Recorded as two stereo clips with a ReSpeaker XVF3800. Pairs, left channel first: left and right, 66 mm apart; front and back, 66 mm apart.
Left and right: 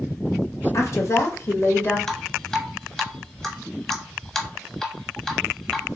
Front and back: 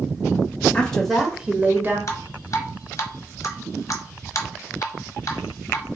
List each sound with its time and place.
0.7 s a woman speaking: 65° left, 1.3 m; by 2.0 s 135° left, 1.5 m
2.1 s dripping: 15° left, 1.1 m